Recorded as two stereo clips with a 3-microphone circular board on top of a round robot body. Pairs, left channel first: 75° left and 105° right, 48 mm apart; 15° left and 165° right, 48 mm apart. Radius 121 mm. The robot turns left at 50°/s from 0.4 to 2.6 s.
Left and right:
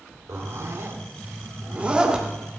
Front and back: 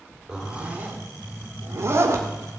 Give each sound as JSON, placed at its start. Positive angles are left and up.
{"t": 0.3, "sound": "a zipper", "azimuth_deg": -95, "distance_m": 2.5}